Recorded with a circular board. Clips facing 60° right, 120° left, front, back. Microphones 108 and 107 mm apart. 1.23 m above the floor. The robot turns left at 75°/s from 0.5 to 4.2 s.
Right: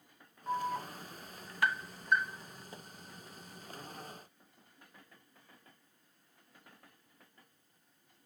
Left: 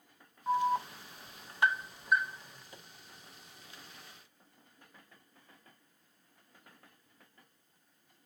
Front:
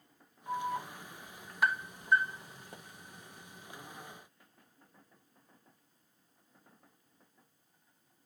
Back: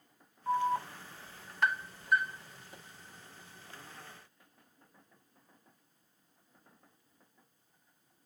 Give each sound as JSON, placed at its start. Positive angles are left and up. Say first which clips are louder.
{"t": 0.5, "sound": "an alarm", "louder": "left 6 dB, back 5 dB", "azimuth_deg": 165, "distance_m": 0.7}
{"t": 2.7, "sound": "a pop", "louder": "right 4 dB, front 3 dB", "azimuth_deg": 0, "distance_m": 1.1}